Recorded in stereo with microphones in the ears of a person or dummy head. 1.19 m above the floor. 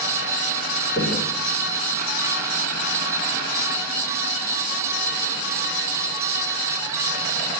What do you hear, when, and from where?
1.0 s knocking: 35° left (ahead or behind), 8.5 m